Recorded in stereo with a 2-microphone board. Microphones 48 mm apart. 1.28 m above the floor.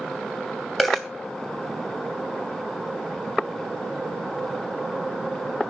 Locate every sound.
0.8 s a dropped coin: 5° left (ahead or behind), 2.5 m